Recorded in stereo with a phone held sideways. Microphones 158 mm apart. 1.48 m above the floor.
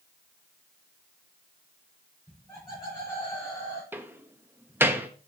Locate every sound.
2.3 s laughter: 25° left (ahead or behind), 5.5 m; by 3.8 s 20° left (ahead or behind), 5 m
3.9 s a door slam: 15° right (ahead or behind), 1.0 m